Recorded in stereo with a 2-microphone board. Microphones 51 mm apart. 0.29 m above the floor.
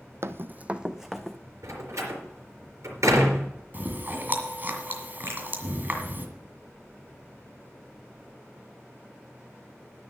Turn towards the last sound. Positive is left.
turn(degrees=-55)  # may be behind; listen again after turning